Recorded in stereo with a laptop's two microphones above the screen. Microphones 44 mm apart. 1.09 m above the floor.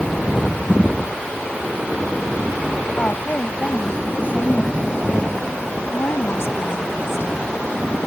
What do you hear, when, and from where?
3.0 s a woman speaking: 45° left (ahead or behind); by 5.5 s 35° left (ahead or behind)
5.9 s a woman speaking: 70° left (ahead or behind)